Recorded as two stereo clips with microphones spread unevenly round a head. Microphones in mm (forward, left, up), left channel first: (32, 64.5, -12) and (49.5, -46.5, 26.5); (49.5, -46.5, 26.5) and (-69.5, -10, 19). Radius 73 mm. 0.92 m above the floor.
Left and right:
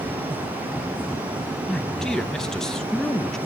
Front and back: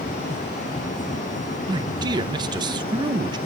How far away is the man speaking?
About 0.7 m.